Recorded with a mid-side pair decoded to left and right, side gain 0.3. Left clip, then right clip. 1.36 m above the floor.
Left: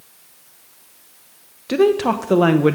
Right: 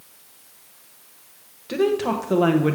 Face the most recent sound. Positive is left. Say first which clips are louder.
# left 5 dB
turn(degrees=60)